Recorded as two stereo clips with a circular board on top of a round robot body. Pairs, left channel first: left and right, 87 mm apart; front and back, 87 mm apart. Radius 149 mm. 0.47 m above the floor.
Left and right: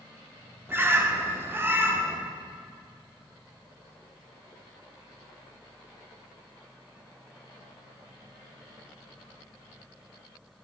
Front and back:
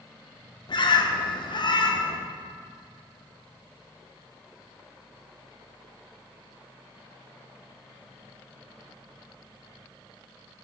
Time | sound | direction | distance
0.7 | a bird | 25° right | 0.8 m